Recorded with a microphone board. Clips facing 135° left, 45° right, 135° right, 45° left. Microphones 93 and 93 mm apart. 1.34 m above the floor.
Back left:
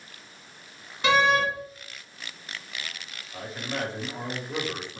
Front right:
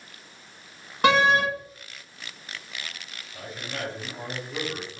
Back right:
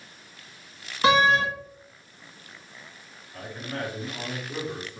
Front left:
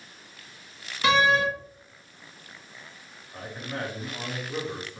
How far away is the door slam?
About 1.6 m.